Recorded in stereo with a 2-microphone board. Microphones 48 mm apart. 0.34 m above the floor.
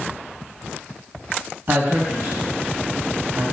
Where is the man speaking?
60° right (ahead or behind), 1.9 m.